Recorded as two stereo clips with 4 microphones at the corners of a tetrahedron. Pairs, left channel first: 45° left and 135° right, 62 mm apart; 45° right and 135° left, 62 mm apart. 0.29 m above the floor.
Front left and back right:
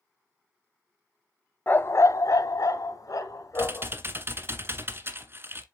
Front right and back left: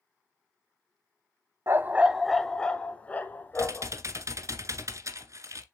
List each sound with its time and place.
1.7 s a dog barking: 100° left, 0.7 m; by 3.9 s 15° left, 2 m
3.5 s typing on a keyboard: 175° left, 1.3 m